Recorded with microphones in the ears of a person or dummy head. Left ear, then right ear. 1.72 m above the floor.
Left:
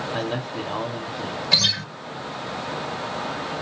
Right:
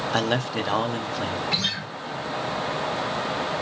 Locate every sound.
0.1 s a man speaking: 75° right (ahead or behind), 1.6 m
1.5 s a guitar: 30° left (ahead or behind), 4.5 m